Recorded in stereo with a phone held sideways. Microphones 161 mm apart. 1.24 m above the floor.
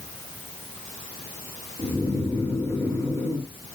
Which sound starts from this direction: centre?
Snoring, at 1.8 s.